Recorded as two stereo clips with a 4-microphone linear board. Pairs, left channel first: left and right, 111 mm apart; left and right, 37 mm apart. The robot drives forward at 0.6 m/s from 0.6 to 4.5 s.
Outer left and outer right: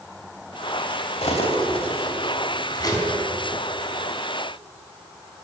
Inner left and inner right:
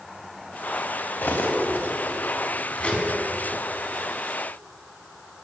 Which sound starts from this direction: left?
Cutlery clinking, at 1.2 s.